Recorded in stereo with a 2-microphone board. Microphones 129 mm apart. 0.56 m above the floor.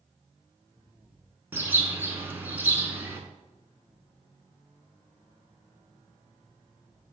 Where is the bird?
15° right (ahead or behind), 0.9 m.